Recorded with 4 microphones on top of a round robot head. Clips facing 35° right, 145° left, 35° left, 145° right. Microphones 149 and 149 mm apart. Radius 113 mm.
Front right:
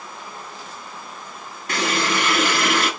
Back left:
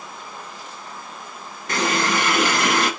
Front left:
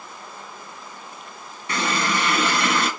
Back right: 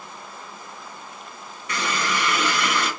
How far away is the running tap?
About 2 m.